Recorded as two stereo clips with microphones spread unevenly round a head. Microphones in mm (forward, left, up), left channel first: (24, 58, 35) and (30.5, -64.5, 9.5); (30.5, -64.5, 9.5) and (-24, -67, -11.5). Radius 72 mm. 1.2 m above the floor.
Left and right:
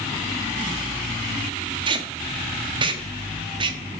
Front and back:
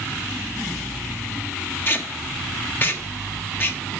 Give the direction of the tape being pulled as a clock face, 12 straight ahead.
1 o'clock.